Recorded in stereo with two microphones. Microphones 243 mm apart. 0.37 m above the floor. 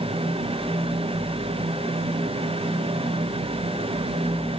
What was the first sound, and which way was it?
Only background noise.